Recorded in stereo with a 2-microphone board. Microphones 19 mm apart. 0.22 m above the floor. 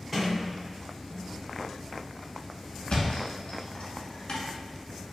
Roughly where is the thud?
Left.